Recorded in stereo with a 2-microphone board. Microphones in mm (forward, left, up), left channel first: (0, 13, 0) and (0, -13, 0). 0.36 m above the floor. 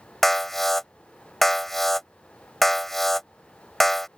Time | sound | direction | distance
0.2 | an alarm | 10° left (ahead or behind) | ?